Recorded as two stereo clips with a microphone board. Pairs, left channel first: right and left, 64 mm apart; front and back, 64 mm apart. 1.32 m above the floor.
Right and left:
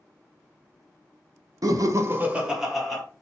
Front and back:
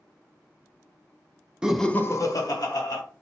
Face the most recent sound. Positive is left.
turn(degrees=0)